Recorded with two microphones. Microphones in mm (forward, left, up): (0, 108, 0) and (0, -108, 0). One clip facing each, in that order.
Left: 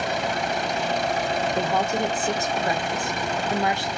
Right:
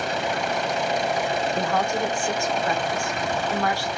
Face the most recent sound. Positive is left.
turn(degrees=20)  # may be behind; listen again after turning